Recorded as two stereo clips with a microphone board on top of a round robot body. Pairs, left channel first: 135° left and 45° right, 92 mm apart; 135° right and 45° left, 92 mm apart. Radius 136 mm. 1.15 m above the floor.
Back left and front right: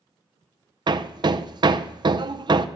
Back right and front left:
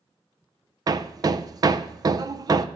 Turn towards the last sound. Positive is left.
turn(degrees=-5)